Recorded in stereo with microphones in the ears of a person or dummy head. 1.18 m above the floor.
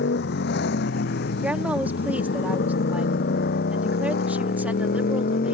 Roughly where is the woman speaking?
Centre.